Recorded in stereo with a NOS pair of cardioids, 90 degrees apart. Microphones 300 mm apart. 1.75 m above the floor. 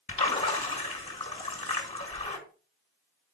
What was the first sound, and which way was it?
A splash, 20° left.